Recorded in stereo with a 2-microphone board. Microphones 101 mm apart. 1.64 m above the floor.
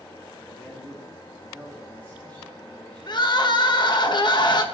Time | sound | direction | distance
0.4 | a man speaking | 20° left (ahead or behind) | 3 m
3.1 | crying | 45° left (ahead or behind) | 0.9 m